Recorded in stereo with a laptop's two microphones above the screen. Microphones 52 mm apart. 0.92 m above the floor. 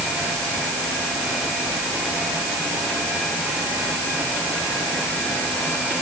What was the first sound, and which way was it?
Only background noise.